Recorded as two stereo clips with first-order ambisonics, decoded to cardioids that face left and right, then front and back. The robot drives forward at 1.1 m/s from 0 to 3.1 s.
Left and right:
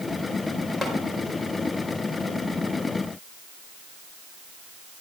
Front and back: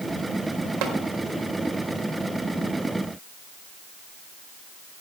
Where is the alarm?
No alarm in this recording.